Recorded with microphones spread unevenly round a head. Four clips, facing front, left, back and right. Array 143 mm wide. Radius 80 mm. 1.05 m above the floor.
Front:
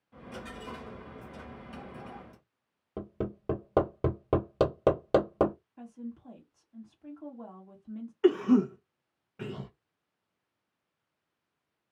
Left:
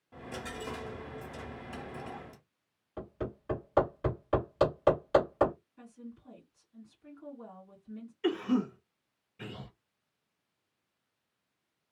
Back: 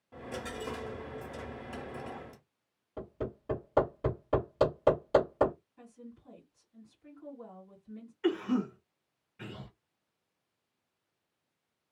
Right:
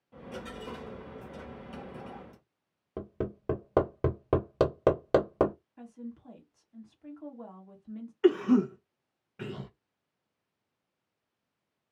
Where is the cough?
65° right, 0.8 m.